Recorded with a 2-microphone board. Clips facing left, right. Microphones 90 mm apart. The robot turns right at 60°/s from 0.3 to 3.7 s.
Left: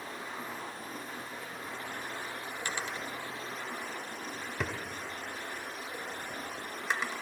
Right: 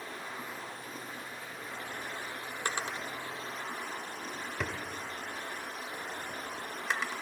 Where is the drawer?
50° right (ahead or behind), 0.8 m; by 7.2 s 5° left (ahead or behind), 0.8 m.